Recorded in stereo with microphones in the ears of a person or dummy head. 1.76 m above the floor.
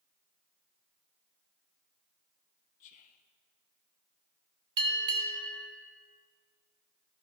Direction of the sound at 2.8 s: 35° left (ahead or behind).